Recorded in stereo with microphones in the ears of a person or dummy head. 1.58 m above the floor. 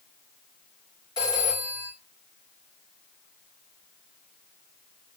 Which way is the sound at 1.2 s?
15° left (ahead or behind).